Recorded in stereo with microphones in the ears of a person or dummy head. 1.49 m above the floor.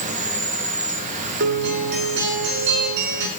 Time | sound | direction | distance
0.0 | an insect | 40° right (ahead or behind) | 2.5 m
1.4 | a guitar | 65° right (ahead or behind) | 3.5 m